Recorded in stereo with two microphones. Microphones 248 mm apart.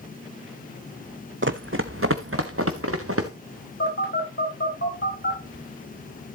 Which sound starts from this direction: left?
A phone buzzing, at 3.8 s.